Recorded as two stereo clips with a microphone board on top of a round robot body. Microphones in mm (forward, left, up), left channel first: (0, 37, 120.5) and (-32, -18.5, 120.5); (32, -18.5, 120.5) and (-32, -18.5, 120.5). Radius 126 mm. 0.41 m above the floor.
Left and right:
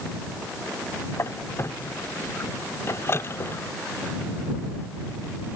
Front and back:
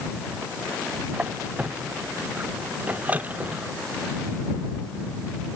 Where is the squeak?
110° left.